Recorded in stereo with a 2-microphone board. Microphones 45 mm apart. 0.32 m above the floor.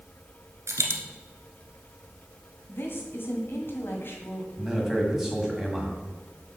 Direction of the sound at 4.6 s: 10° right (ahead or behind).